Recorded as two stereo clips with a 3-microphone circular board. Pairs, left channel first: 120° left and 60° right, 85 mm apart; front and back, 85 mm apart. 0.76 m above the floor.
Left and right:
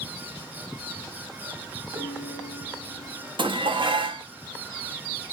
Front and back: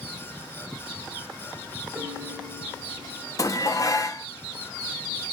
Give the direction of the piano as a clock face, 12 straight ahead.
4 o'clock.